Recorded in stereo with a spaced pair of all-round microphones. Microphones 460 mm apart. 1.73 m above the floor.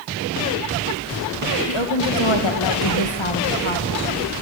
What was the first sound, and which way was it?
A woman speaking, 70° left (ahead or behind).